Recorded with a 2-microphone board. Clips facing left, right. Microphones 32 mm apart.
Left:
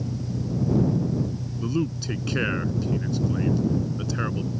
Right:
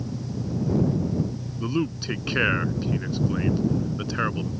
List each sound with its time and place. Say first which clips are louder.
0.0 s an engine running: left 1 dB; 10° right (ahead or behind)
1.6 s a man speaking: right 1 dB; 20° right (ahead or behind)